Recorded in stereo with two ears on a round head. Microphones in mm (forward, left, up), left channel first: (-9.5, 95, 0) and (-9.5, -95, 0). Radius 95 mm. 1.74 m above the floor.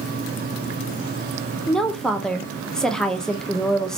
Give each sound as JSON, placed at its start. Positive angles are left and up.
{"t": 1.7, "sound": "a woman speaking", "side_deg": 5, "distance_m": 0.5}